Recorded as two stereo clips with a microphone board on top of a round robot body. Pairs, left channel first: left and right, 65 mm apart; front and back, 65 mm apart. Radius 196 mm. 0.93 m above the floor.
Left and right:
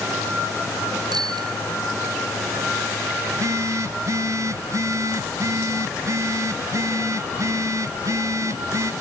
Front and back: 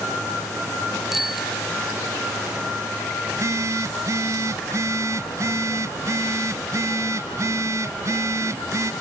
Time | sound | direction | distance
1.1 | a bicycle bell | 90° right | ?
3.3 | a phone buzzing | 135° right | ?